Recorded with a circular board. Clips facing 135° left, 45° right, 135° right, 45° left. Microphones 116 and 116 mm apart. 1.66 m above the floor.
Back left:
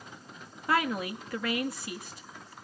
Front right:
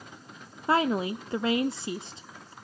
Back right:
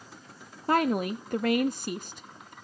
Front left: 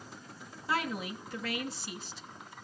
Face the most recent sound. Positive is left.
turn(degrees=-105)